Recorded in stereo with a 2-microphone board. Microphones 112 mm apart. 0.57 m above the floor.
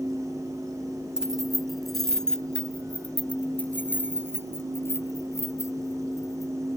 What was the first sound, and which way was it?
Keys jangling, 5° right (ahead or behind).